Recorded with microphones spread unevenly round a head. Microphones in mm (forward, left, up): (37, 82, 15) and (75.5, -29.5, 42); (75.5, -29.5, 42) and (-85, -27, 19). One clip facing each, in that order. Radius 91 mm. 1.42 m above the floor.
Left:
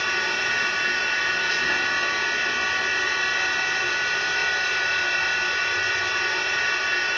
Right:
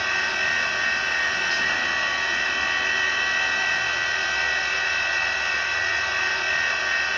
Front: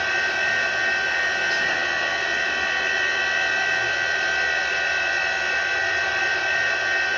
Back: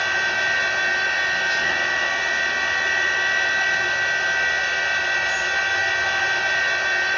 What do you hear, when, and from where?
0.0 s a machine running: 90° left, 2.5 m